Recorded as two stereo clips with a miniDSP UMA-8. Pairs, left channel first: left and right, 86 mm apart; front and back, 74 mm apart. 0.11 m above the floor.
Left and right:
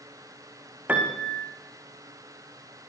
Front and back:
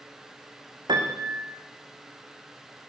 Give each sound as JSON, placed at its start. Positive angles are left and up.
{"t": 0.9, "sound": "a piano", "azimuth_deg": -160, "distance_m": 6.5}